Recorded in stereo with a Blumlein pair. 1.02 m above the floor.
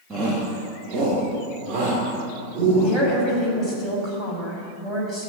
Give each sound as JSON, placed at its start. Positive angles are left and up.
{"t": 0.1, "sound": "a shout", "azimuth_deg": -20, "distance_m": 1.7}
{"t": 2.8, "sound": "a woman speaking", "azimuth_deg": -5, "distance_m": 5.0}